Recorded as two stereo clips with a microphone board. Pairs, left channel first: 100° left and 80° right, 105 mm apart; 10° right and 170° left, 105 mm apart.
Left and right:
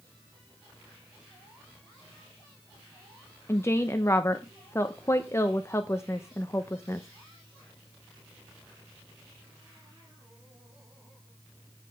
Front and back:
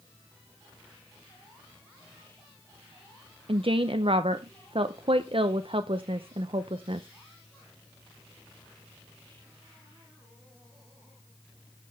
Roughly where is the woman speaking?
Behind.